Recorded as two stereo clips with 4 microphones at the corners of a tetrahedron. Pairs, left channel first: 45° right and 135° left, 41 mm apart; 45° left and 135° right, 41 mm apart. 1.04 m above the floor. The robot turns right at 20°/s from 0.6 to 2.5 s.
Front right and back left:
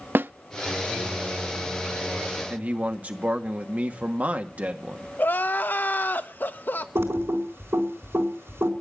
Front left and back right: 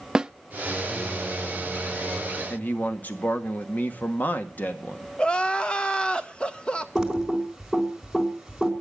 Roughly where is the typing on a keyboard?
Behind left.